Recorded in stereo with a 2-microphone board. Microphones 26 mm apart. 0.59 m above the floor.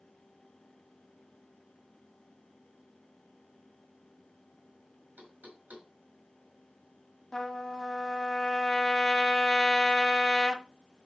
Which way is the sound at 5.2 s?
85° right.